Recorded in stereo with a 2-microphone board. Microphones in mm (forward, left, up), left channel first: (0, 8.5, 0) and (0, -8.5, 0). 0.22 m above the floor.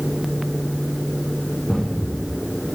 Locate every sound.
1.7 s a thud: 80° left, 7.5 m